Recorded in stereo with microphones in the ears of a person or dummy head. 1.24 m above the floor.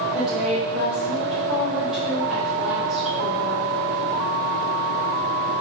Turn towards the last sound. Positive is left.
turn(degrees=0)  # may be behind; listen again after turning